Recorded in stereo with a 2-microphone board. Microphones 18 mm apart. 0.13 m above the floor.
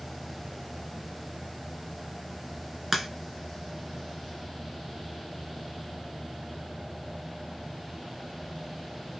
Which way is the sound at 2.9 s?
5° right (ahead or behind).